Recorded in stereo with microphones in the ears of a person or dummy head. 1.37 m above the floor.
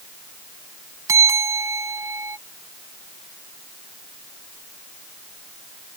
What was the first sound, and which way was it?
A bell, 25° right (ahead or behind).